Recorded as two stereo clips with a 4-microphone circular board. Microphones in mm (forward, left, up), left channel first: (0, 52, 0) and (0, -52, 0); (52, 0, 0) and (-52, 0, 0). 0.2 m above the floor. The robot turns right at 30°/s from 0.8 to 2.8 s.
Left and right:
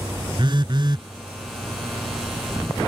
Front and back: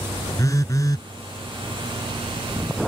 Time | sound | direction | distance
0.4 | a phone buzzing | 55° right | ?